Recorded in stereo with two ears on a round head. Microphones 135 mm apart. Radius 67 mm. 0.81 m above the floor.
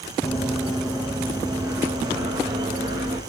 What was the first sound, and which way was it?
Running footsteps, 5° left (ahead or behind).